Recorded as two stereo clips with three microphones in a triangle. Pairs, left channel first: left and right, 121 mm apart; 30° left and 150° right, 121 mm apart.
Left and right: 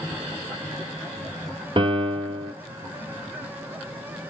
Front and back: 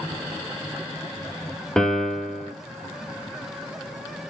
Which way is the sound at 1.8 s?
55° right.